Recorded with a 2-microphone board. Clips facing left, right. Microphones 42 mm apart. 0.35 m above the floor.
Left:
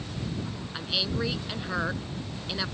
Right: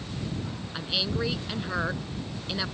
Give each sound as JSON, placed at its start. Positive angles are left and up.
{"t": 0.7, "sound": "a woman speaking", "side_deg": 0}